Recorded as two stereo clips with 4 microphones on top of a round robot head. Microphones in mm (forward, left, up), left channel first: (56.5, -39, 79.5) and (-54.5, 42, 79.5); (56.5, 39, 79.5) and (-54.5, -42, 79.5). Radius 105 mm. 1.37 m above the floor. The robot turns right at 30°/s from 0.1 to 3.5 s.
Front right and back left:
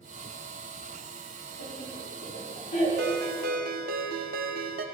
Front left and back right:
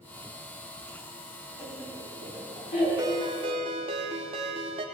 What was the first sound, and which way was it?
Laughter, 35° right.